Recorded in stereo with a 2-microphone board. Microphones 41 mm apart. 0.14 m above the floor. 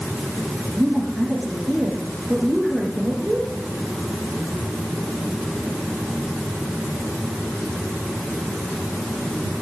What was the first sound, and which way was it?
A woman speaking, 20° right (ahead or behind).